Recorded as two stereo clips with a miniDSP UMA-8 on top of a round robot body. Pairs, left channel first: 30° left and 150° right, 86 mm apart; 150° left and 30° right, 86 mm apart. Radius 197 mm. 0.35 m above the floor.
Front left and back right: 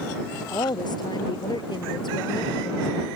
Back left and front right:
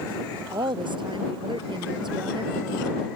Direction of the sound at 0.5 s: 5° right.